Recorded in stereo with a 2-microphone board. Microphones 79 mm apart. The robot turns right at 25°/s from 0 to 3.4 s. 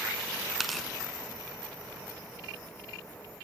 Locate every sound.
0.6 s tearing paper: centre (ahead or behind), 0.6 m; by 0.9 s 5° left (ahead or behind), 0.6 m